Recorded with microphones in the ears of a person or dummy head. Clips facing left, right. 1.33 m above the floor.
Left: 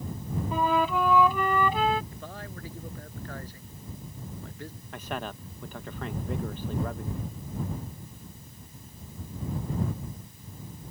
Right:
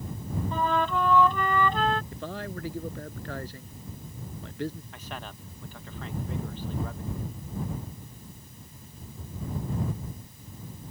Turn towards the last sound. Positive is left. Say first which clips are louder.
# left 6 dB
turn(degrees=45)  # may be behind; listen again after turning